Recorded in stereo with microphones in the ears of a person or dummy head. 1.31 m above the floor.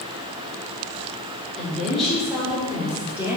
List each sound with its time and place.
1.6 s a woman speaking: 5° left (ahead or behind), 4.5 m; by 3.4 s 10° right (ahead or behind), 3.5 m